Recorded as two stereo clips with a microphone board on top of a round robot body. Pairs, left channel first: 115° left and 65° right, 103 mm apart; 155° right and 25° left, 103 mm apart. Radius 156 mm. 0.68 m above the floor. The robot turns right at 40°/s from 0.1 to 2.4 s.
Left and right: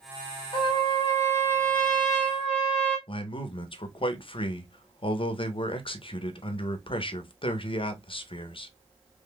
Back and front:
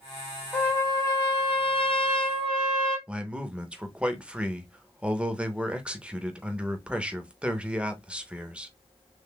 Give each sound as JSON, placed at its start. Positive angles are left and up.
{"t": 0.5, "sound": "a trumpet", "azimuth_deg": 140, "distance_m": 2.0}
{"t": 3.1, "sound": "a man speaking", "azimuth_deg": 100, "distance_m": 0.9}